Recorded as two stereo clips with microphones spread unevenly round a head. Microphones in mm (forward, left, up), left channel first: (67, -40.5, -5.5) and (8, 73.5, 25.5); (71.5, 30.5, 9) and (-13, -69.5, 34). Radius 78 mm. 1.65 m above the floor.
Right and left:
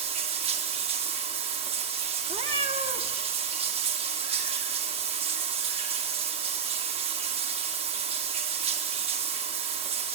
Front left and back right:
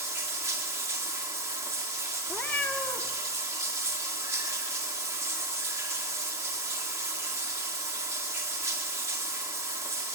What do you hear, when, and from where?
0.0 s running water: 160° left, 2 m
2.3 s a cat meowing: 135° left, 1.6 m